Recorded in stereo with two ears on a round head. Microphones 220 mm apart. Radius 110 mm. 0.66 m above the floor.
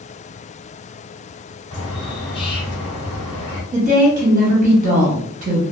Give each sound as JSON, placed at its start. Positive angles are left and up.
{"t": 1.7, "sound": "a bird", "side_deg": 20, "distance_m": 0.9}
{"t": 3.7, "sound": "a woman speaking", "side_deg": -35, "distance_m": 0.8}